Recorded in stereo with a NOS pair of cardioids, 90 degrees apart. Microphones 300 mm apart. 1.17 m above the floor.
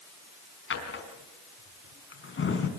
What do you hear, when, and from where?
0.7 s a drawer: 40° left, 4.5 m